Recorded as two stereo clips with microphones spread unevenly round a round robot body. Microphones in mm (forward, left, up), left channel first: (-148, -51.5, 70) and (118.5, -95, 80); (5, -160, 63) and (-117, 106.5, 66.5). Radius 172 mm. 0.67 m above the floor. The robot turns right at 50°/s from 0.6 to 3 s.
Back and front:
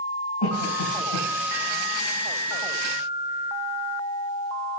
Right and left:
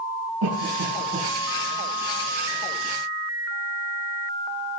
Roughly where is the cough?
Behind left.